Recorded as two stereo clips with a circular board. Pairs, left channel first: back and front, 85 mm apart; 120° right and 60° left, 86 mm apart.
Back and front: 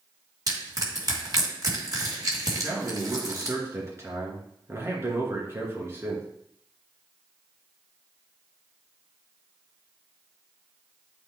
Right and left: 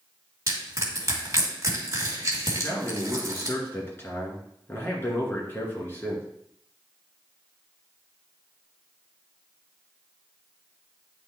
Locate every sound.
0.5 s crushing: 20° left, 2.5 m
2.5 s a man speaking: 60° right, 2.5 m